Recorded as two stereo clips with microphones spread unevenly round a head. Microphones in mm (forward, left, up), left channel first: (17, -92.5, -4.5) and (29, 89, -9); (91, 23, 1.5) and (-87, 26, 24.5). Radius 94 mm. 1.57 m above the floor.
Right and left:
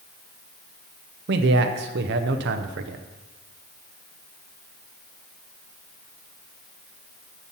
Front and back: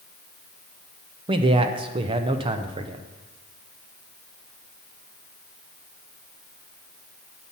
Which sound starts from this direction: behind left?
A man speaking, at 1.3 s.